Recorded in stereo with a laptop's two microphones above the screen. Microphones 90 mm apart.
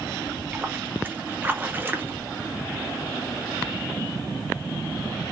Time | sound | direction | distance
0.2 | a splash | 25° right (ahead or behind) | 0.5 m